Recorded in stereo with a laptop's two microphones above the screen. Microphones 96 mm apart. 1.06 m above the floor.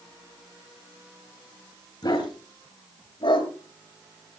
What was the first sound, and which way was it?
A dog barking, 45° left (ahead or behind).